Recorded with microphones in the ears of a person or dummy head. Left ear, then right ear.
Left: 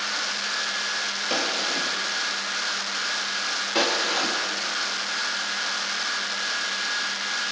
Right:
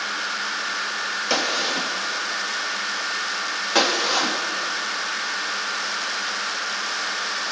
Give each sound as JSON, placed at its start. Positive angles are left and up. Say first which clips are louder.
{"t": 1.3, "sound": "a gunshot", "louder": "right 4 dB", "side_deg": -20, "distance_m": 2.5}